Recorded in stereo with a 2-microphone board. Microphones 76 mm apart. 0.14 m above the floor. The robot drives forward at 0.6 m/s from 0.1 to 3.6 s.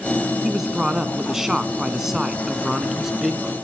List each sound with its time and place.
0.4 s a man speaking: 5° right (ahead or behind), 1.3 m